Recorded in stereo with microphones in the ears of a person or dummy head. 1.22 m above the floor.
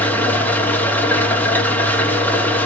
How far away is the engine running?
About 1.7 m.